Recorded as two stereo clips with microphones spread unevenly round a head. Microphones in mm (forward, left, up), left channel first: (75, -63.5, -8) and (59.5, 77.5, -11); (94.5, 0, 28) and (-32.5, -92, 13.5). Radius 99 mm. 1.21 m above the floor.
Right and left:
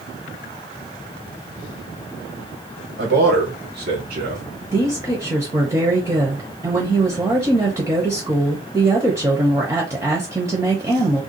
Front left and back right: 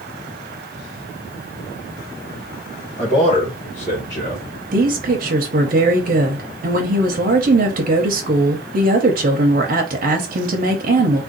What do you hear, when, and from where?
3.0 s a man speaking: 100° left, 1.4 m; by 4.4 s 90° left, 0.8 m
4.7 s a woman speaking: 175° left, 0.6 m